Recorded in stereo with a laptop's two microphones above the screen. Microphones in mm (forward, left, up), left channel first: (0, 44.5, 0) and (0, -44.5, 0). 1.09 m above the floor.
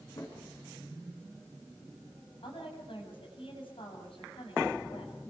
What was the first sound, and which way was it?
A drawer, 50° left (ahead or behind).